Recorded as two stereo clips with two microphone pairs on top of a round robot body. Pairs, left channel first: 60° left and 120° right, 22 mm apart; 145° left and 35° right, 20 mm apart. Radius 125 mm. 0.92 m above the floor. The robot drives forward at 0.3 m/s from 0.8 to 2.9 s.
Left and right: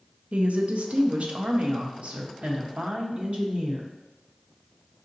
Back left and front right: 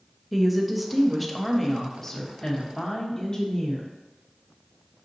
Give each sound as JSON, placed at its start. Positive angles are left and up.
{"t": 0.3, "sound": "a woman speaking", "azimuth_deg": -120, "distance_m": 0.7}